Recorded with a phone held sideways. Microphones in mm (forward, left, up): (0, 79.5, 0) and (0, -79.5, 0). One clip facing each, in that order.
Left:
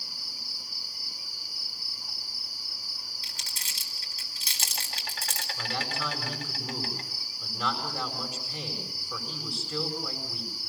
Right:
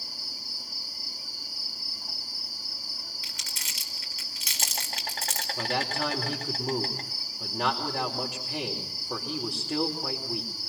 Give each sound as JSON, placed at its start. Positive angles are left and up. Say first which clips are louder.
{"t": 0.0, "sound": "an insect", "louder": "right 3 dB", "side_deg": -45, "distance_m": 2.5}
{"t": 3.2, "sound": "crumpling", "louder": "right 2 dB", "side_deg": 35, "distance_m": 4.0}
{"t": 5.6, "sound": "a man speaking", "louder": "right 5 dB", "side_deg": -65, "distance_m": 4.5}